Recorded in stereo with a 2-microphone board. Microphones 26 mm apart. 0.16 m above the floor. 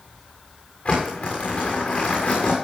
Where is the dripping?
I don't hear dripping.